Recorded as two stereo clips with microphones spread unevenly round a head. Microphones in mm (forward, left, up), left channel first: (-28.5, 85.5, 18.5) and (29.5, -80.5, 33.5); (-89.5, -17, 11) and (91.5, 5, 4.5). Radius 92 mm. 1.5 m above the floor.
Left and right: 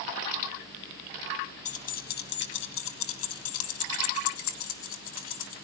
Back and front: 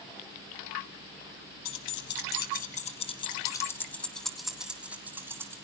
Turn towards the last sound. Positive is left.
turn(degrees=85)